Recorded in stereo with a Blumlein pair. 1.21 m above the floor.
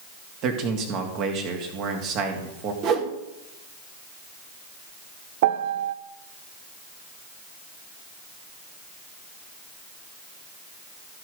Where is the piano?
55° right, 0.6 m.